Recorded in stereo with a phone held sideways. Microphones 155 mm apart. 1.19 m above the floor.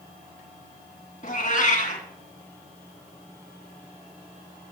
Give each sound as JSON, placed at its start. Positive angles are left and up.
{"t": 1.2, "sound": "a cat meowing", "side_deg": 60, "distance_m": 2.0}